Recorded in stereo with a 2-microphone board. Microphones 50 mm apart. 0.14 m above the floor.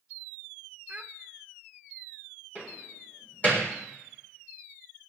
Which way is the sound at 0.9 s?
25° right (ahead or behind).